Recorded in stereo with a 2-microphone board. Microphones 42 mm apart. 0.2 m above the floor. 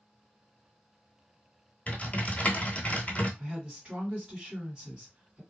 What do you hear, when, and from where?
1.9 s typing on a keyboard: 35° left (ahead or behind), 0.8 m
3.4 s a woman speaking: 20° right (ahead or behind), 1.8 m